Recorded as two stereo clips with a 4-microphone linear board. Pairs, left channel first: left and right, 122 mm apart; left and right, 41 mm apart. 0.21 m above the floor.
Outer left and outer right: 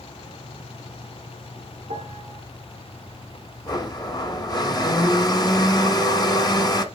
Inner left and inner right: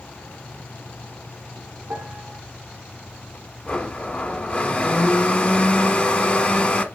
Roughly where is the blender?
Left.